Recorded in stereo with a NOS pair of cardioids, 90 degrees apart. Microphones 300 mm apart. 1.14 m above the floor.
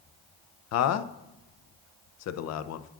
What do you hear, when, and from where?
0.7 s a man speaking: 60° left, 0.5 m